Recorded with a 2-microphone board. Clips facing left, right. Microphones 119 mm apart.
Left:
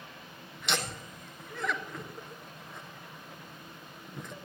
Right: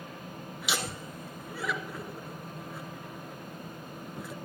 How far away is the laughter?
About 1.2 m.